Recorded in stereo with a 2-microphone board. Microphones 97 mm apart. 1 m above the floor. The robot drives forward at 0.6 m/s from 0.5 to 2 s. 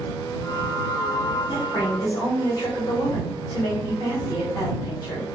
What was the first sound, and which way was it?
A woman speaking, 45° left (ahead or behind).